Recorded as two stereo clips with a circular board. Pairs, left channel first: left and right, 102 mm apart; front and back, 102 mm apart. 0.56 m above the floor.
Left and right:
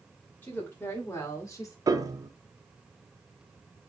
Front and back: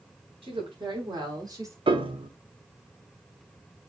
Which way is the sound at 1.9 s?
145° right.